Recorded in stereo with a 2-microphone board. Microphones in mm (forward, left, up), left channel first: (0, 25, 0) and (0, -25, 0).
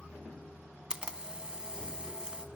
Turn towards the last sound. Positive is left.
turn(degrees=-20)  # may be behind; listen again after turning